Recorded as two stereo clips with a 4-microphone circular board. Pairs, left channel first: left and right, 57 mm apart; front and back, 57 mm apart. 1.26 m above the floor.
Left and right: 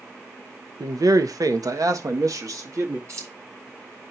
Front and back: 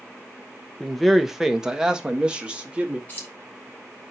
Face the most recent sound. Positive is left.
turn(degrees=-60)